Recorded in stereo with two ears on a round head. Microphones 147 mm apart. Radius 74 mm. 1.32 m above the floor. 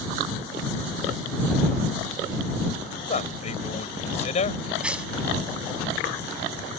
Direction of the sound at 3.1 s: 45° left (ahead or behind).